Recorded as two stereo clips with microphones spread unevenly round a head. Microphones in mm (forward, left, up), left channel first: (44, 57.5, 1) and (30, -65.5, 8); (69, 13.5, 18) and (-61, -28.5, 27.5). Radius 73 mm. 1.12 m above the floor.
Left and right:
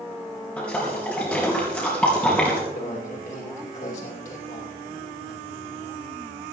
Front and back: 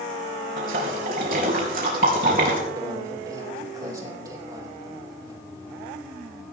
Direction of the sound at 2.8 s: 130° left.